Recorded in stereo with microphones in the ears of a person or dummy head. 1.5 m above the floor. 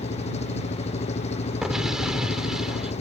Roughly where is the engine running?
Left.